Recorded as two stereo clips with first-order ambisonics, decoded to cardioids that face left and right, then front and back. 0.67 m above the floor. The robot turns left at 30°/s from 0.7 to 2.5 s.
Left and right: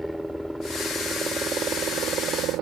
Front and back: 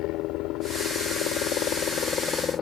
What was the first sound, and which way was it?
A helicopter, straight ahead.